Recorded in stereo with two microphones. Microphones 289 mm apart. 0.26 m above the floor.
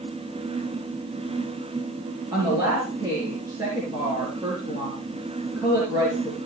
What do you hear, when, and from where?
2.3 s a woman speaking: 10° right (ahead or behind), 4.5 m